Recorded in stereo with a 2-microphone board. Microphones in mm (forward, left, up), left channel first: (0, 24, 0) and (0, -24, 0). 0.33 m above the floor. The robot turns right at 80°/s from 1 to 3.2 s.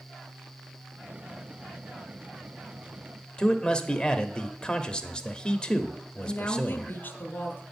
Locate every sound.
3.4 s a man speaking: 20° left (ahead or behind), 0.9 m
6.2 s a woman speaking: 45° left (ahead or behind), 1.7 m